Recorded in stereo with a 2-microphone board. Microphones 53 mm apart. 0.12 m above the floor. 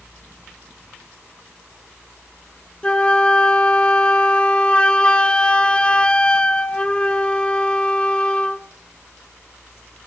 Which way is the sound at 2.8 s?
20° left (ahead or behind).